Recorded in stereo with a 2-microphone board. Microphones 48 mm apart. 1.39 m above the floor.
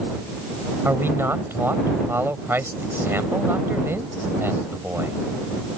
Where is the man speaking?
45° right (ahead or behind).